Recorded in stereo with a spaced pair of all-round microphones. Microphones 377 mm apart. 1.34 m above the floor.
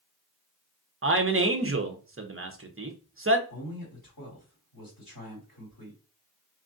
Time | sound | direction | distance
1.0 | a man speaking | 35° right (ahead or behind) | 0.6 m
3.5 | a man speaking | 60° left (ahead or behind) | 2 m